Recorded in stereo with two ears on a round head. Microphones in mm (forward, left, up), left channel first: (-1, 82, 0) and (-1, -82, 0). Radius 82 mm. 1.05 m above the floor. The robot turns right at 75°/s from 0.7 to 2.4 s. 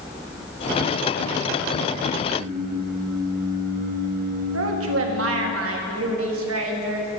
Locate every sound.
2.4 s singing: 50° right (ahead or behind), 0.9 m
4.5 s a woman speaking: 80° right, 1.4 m